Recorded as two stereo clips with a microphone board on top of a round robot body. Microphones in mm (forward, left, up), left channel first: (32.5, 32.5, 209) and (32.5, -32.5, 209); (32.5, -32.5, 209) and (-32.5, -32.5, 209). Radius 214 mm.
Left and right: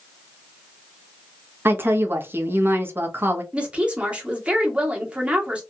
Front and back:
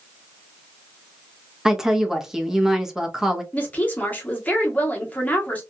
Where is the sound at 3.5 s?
35° right, 1.5 m.